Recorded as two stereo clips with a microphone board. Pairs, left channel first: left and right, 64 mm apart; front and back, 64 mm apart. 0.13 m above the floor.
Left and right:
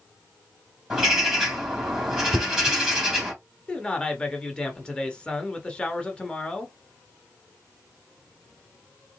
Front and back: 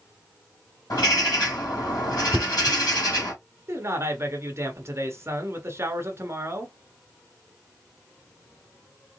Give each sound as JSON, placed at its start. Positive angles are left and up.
{"t": 0.9, "sound": "a bird", "azimuth_deg": -5, "distance_m": 3.0}
{"t": 2.3, "sound": "knocking", "azimuth_deg": -95, "distance_m": 0.9}
{"t": 3.7, "sound": "a man speaking", "azimuth_deg": 160, "distance_m": 1.4}